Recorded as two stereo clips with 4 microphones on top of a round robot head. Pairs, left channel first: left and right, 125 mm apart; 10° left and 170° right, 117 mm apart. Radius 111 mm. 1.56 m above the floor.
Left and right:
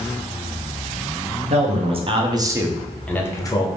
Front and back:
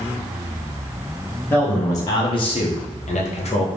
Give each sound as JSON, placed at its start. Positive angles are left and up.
{"t": 1.5, "sound": "a man speaking", "azimuth_deg": -65, "distance_m": 1.0}